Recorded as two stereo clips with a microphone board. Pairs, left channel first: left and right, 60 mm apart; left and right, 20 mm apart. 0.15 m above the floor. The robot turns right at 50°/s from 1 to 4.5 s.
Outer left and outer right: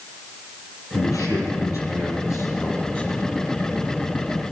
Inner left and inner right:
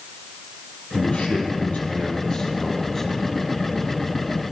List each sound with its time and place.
0.9 s a man speaking: 60° left, 5.5 m; by 3.4 s straight behind, 5.5 m